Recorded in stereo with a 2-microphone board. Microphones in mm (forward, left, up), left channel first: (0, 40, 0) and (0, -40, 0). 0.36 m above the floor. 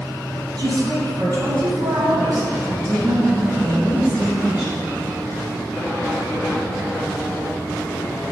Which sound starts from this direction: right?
A woman speaking, at 0.6 s.